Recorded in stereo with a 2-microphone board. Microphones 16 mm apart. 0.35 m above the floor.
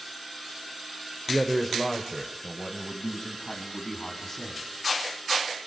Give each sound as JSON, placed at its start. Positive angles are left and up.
{"t": 1.3, "sound": "a man speaking", "side_deg": -10, "distance_m": 0.9}